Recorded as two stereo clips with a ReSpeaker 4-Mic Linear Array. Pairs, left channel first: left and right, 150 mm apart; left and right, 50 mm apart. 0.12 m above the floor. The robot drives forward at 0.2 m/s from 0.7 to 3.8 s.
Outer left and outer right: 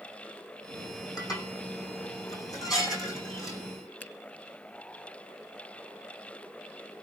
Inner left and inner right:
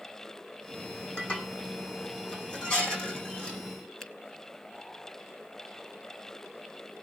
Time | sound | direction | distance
1.2 | dishes clattering | 25° left (ahead or behind) | 4.5 m
4.0 | a finger snap | 10° left (ahead or behind) | 1.3 m